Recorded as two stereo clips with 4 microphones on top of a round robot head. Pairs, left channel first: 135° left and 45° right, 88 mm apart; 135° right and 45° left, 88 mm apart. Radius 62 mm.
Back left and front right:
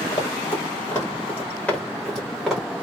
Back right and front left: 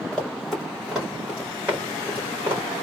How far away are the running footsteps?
About 1.7 m.